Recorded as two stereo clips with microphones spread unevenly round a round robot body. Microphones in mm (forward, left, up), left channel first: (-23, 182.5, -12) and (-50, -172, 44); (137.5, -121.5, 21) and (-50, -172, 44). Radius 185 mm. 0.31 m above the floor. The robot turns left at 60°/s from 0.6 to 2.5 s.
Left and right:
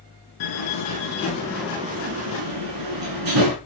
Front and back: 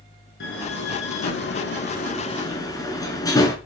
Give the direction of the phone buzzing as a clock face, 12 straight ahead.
I don't hear a phone buzzing.